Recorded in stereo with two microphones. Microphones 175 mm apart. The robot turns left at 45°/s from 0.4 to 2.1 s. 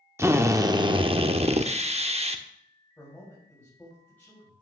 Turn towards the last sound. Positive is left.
turn(degrees=10)  # may be behind; listen again after turning